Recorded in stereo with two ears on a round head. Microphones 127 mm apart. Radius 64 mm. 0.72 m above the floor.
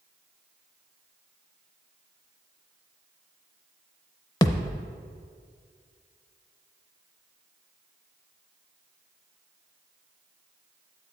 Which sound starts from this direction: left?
A thud, at 4.4 s.